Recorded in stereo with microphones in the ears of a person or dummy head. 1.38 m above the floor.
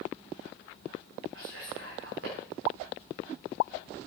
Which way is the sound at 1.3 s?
75° right (ahead or behind).